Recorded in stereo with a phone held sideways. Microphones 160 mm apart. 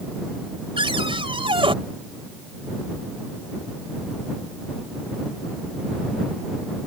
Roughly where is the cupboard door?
Right.